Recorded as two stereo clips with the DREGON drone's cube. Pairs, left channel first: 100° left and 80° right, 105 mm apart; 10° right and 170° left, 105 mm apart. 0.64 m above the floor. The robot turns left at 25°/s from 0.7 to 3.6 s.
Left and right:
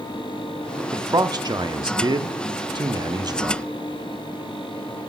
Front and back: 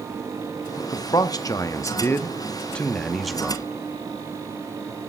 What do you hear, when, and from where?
0.8 s a man speaking: 40° right, 0.7 m; by 3.6 s 110° right, 0.7 m